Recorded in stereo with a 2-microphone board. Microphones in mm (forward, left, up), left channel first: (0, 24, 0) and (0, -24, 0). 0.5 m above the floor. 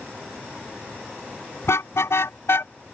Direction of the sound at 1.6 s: 80° left.